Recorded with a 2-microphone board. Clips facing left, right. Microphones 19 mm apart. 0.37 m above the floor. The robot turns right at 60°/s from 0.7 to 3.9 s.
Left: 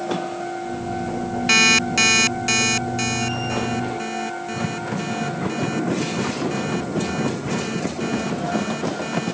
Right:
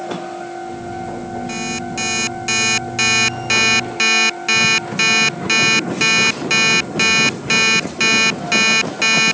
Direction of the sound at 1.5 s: 125° left.